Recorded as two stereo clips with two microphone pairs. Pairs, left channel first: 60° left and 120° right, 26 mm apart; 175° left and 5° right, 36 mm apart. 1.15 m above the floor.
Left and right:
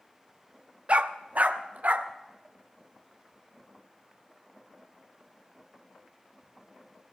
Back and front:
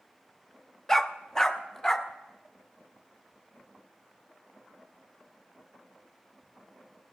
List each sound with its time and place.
0.9 s a dog barking: 115° right, 0.7 m